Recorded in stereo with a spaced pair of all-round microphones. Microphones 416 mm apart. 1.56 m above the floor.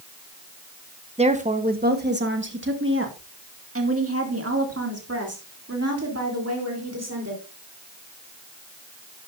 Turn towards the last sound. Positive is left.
turn(degrees=-40)  # may be behind; listen again after turning